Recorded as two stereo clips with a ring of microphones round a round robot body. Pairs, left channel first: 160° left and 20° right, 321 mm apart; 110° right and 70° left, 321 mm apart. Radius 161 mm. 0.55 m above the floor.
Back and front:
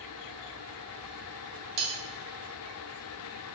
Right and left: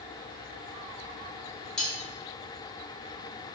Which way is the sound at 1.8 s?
25° right.